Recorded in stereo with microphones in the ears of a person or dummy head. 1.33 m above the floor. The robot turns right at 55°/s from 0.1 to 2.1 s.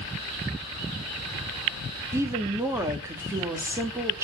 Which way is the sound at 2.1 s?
10° right (ahead or behind).